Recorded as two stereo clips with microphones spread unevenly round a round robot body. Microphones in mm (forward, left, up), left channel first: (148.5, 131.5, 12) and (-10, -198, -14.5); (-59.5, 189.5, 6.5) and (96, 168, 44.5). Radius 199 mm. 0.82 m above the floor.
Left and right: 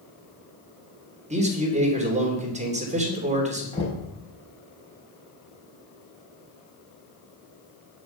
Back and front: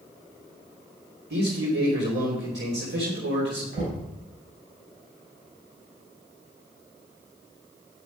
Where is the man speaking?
45° right, 3 m.